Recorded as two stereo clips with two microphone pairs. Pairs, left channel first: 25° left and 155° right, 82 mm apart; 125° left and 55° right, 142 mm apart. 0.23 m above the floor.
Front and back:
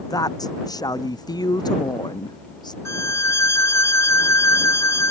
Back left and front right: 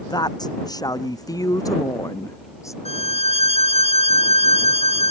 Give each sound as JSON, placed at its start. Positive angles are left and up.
{"t": 0.1, "sound": "a woman speaking", "azimuth_deg": 65}
{"t": 2.9, "sound": "a violin", "azimuth_deg": 85}